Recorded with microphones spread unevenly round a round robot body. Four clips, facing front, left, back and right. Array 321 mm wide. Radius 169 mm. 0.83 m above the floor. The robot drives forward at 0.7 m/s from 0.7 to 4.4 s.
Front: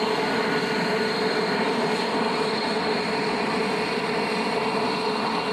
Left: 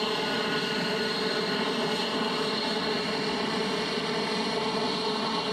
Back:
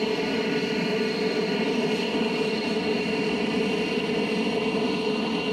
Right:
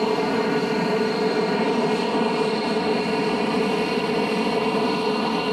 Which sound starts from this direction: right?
An aircraft, at 0.0 s.